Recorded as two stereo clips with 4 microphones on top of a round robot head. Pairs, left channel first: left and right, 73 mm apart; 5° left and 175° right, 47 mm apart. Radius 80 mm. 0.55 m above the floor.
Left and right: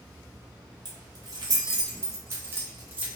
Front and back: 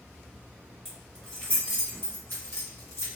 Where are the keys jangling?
80° right, 1.4 m; by 3.1 s 20° right, 1.5 m.